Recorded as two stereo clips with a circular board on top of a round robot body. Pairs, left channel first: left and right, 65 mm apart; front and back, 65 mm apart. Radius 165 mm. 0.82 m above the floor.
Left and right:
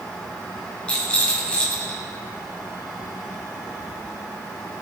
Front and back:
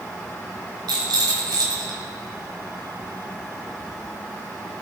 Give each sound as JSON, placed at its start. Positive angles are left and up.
{"t": 0.9, "sound": "a rattle", "azimuth_deg": 165, "distance_m": 2.0}